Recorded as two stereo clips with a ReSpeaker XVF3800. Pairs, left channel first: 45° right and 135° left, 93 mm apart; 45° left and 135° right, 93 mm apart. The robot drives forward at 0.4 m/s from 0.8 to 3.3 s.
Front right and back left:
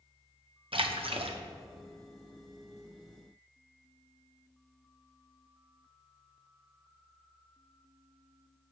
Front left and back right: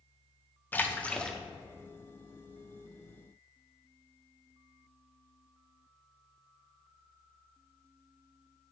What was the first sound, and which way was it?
A splash, 115° left.